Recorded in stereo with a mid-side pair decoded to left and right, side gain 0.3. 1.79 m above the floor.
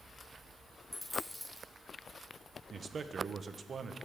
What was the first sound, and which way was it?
A dropped coin, 20° left.